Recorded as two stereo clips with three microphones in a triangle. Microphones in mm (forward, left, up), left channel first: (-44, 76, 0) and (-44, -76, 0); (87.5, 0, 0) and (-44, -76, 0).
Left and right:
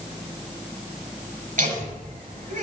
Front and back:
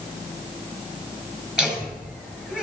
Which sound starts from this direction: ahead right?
Laughter, at 1.6 s.